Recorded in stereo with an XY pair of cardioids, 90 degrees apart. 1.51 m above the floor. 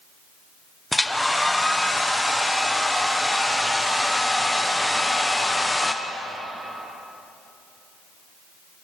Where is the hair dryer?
10° left, 1.2 m.